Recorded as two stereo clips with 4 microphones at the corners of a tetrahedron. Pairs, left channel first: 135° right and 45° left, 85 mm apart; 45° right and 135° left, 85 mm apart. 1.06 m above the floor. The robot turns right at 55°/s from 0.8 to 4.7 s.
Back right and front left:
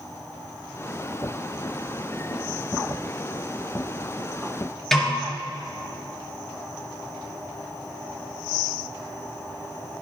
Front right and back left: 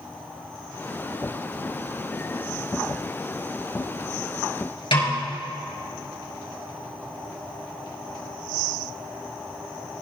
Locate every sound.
4.9 s a snare drum: 50° right, 4.5 m